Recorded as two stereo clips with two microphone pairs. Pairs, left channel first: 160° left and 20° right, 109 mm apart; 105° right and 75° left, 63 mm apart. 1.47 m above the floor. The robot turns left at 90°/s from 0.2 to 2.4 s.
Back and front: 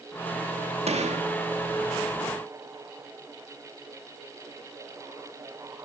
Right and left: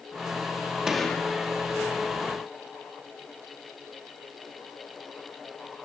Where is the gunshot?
5° right, 2.5 m; by 1.3 s 45° right, 2.5 m.